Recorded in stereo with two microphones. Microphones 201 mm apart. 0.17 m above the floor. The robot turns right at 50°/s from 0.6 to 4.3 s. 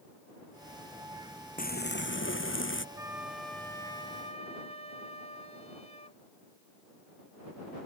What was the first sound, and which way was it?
Frying, 45° left.